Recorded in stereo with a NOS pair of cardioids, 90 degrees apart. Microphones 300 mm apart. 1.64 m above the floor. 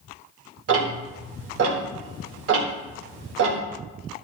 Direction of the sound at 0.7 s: 50° right.